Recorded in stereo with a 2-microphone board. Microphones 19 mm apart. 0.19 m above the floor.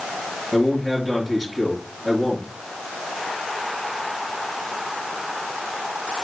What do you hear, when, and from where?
0.5 s a man speaking: 15° left (ahead or behind), 3.5 m